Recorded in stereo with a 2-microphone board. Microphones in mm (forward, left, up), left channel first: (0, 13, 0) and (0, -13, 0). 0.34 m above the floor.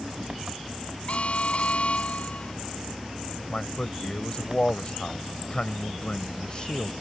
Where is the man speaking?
35° left (ahead or behind).